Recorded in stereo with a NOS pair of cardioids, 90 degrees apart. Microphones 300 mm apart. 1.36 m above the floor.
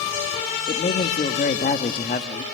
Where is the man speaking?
30° left, 2 m.